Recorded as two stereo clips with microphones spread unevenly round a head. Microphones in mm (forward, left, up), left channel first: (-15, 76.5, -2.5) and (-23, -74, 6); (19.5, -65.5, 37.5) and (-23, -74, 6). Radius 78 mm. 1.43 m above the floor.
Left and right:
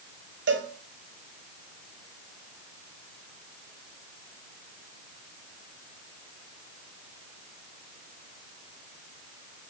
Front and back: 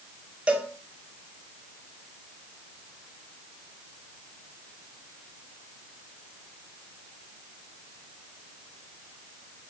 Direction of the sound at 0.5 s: 100° right.